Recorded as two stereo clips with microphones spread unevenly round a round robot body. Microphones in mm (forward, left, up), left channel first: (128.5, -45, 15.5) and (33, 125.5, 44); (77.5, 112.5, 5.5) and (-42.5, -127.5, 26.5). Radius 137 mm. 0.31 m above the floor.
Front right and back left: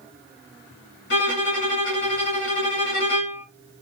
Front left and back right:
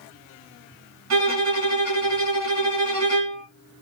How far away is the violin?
About 2 m.